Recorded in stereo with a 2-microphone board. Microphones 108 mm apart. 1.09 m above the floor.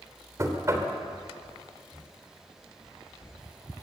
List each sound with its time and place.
0.4 s knocking: 30° right (ahead or behind), 2.5 m